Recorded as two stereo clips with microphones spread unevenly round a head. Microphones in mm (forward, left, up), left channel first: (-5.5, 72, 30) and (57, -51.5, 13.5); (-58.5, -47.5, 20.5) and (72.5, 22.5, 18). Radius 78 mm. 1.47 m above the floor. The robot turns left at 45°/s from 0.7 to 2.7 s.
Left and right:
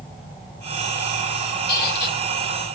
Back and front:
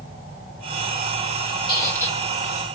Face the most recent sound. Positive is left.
turn(degrees=100)